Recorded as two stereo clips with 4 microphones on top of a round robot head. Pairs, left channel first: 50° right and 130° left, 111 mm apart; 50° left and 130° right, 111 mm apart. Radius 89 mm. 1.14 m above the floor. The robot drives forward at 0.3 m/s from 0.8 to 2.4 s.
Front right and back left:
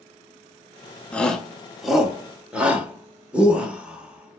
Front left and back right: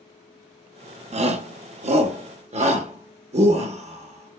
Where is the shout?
130° right, 0.7 m; by 4.4 s 150° right, 0.9 m.